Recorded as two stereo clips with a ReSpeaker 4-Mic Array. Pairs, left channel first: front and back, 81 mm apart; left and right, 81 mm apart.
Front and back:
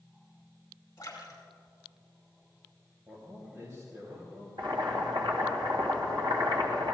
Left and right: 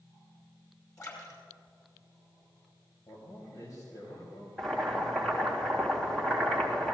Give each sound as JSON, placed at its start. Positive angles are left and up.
{"t": 1.0, "sound": "a splash", "azimuth_deg": 50, "distance_m": 5.5}
{"t": 3.1, "sound": "a man speaking", "azimuth_deg": 130, "distance_m": 3.0}
{"t": 4.6, "sound": "boiling", "azimuth_deg": 175, "distance_m": 3.0}